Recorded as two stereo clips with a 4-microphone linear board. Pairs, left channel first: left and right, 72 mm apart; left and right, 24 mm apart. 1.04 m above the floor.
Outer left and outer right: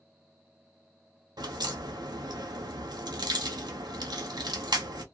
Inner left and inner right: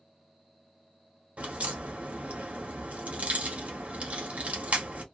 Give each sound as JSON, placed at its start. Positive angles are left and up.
{"t": 1.4, "sound": "a crack", "side_deg": -65, "distance_m": 0.8}